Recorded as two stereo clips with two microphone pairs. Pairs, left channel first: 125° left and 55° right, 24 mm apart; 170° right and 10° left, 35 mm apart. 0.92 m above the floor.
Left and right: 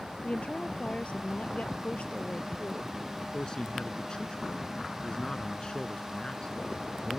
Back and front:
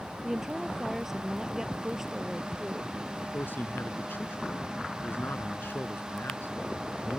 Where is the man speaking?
Straight behind.